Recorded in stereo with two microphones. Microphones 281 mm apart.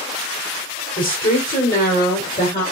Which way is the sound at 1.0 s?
30° left (ahead or behind).